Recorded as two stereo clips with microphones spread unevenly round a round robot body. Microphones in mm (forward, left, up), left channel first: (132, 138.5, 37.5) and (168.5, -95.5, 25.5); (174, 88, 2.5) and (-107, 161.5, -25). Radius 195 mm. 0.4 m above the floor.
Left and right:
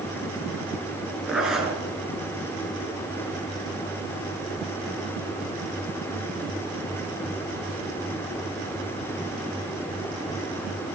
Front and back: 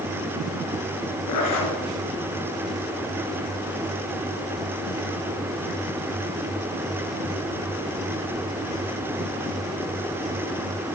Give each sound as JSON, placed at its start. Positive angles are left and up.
{"t": 1.3, "sound": "a zipper", "azimuth_deg": 5, "distance_m": 5.5}